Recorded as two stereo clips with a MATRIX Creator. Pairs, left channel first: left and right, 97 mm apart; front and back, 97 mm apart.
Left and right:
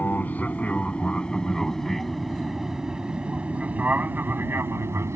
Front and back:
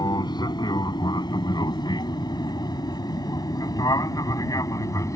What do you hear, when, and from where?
0.0 s an aircraft: 25° left; by 5.2 s 40° right